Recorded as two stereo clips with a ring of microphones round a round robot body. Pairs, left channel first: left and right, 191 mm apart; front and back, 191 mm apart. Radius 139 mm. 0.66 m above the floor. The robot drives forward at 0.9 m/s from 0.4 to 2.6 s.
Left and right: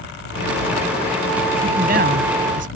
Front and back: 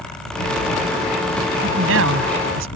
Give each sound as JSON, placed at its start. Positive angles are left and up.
{"t": 1.6, "sound": "a man speaking", "azimuth_deg": -145}